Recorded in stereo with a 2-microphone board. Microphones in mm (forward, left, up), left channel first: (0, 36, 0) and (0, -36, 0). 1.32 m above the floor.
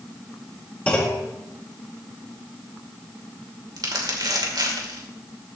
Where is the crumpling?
65° right (ahead or behind), 2.5 m.